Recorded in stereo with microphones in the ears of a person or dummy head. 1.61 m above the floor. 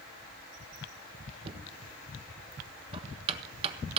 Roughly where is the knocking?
Right.